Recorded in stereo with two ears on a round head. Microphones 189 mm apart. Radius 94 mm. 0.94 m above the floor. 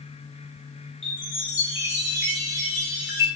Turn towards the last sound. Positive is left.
turn(degrees=60)  # may be behind; listen again after turning